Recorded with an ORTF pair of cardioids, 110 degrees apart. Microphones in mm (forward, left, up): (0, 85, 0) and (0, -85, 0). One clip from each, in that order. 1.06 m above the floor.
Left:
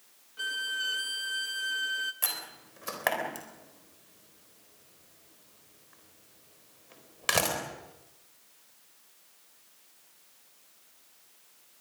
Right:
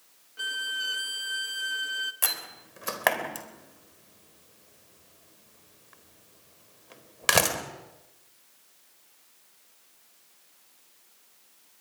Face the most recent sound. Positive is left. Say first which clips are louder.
# right 4 dB
turn(degrees=-30)